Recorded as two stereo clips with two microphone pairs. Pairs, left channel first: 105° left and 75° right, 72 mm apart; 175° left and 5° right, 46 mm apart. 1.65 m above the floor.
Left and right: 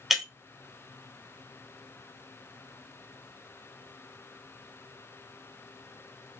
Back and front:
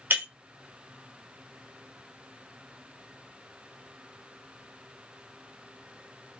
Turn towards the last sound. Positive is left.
turn(degrees=10)